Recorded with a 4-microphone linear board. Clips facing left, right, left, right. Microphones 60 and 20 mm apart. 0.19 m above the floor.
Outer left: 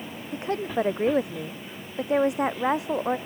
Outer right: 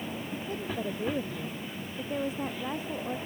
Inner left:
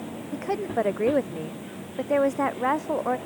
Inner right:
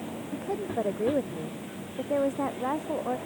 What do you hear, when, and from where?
0.3 s a woman speaking: 80° left